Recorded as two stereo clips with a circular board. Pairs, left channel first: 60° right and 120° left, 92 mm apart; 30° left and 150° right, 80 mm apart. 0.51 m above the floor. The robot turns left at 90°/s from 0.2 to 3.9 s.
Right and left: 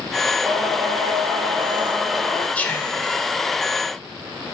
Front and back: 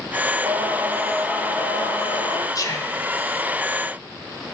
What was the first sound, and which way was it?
Singing, 170° right.